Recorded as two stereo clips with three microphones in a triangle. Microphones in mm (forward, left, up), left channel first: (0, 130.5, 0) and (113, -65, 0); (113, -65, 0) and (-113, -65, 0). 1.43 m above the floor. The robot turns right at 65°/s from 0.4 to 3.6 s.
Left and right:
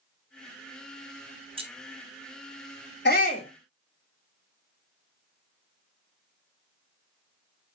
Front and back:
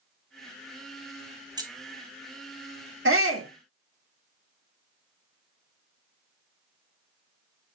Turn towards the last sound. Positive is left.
turn(degrees=-165)